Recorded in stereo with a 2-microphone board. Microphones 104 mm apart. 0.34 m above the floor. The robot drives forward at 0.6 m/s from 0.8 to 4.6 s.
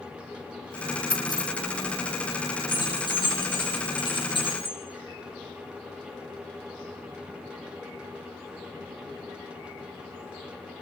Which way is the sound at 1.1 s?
45° left (ahead or behind).